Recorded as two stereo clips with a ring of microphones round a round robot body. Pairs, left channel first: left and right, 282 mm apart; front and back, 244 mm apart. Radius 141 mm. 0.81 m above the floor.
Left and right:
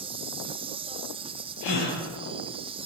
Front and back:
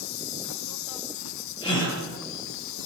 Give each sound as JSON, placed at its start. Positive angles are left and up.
{"t": 0.0, "sound": "an insect", "azimuth_deg": -20, "distance_m": 0.9}
{"t": 1.6, "sound": "a gasp", "azimuth_deg": 70, "distance_m": 9.5}